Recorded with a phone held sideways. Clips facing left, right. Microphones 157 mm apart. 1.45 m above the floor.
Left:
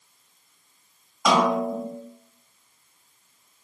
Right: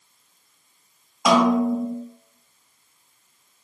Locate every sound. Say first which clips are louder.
1.2 s a snare drum: right 4 dB; 10° right (ahead or behind), 1.9 m